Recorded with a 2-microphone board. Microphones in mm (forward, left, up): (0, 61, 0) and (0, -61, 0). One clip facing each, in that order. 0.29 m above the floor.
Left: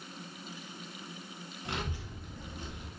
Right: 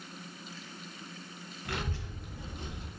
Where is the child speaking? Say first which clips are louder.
Right 1 dB; 25° left (ahead or behind), 0.7 m; by 2.9 s 35° right (ahead or behind), 0.6 m.